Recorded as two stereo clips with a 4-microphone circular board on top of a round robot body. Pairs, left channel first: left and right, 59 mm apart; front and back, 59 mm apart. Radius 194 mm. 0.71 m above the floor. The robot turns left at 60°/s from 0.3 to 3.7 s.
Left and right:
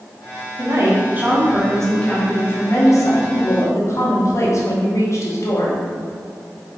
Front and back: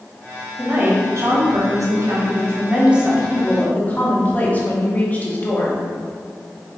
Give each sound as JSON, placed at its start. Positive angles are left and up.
{"t": 0.6, "sound": "a woman speaking", "azimuth_deg": -110, "distance_m": 2.5}